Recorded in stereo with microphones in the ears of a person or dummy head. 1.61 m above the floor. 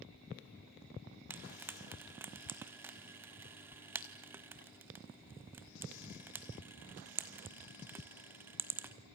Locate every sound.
1.3 s frying: 10° right (ahead or behind), 1.3 m